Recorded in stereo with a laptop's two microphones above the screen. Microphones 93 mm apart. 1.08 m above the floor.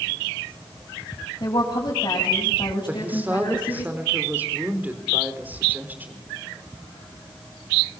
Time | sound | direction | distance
1.4 | a woman speaking | 45° left (ahead or behind) | 6.5 m
2.9 | a woman speaking | 20° right (ahead or behind) | 4 m